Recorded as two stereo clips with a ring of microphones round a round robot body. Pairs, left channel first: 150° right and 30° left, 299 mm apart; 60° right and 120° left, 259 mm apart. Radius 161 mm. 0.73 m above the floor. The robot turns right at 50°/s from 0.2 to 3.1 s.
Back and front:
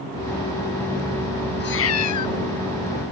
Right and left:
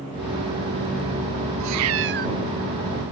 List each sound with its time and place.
1.6 s a cat meowing: 150° left; by 2.4 s 170° right